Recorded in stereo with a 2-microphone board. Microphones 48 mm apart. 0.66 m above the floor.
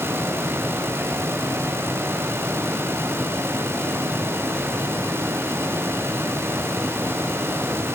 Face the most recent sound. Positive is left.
No sound to turn to.